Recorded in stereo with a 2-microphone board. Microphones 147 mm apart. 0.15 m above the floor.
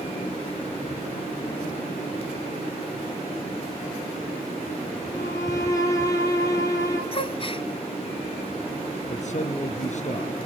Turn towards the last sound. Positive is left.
turn(degrees=50)  # may be behind; listen again after turning